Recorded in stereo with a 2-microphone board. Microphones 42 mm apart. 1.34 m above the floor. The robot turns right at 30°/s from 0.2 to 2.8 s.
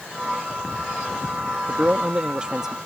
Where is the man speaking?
45° right; by 2.8 s 10° right.